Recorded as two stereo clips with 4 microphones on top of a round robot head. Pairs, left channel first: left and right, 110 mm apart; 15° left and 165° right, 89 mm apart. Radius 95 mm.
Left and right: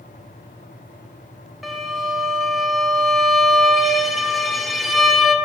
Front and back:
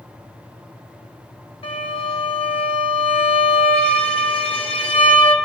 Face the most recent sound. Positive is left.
turn(degrees=0)